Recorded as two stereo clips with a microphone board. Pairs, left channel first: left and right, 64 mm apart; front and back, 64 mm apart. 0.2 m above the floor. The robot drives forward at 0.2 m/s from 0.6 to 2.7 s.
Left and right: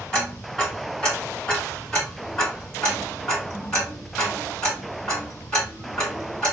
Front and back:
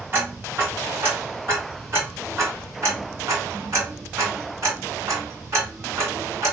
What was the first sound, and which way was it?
Ticking, 160° left.